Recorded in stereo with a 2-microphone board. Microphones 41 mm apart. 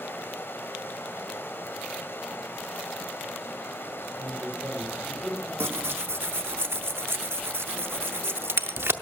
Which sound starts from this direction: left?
Running water, at 0.0 s.